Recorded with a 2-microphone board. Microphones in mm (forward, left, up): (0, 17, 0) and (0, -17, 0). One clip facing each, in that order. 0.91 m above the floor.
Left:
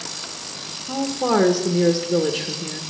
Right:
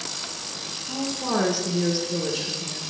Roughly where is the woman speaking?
Left.